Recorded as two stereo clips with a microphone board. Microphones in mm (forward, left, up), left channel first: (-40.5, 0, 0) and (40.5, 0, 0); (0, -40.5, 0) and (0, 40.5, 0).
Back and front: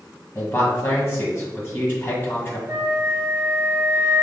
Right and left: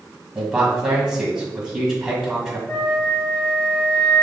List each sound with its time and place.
0.3 s a man speaking: 165° left, 1.7 m
2.7 s a flute: 40° right, 1.0 m